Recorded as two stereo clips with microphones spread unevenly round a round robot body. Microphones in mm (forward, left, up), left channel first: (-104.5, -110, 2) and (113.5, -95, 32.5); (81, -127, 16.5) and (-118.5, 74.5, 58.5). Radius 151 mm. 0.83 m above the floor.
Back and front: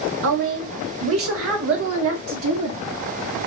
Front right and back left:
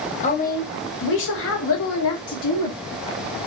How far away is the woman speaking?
About 0.8 m.